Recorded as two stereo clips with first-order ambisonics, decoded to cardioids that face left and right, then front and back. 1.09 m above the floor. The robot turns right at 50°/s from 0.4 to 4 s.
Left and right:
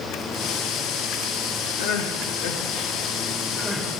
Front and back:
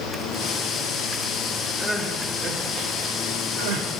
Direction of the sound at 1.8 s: 80° left.